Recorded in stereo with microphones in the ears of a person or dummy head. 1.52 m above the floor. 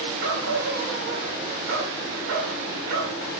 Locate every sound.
0.2 s a dog barking: 60° right (ahead or behind), 6.5 m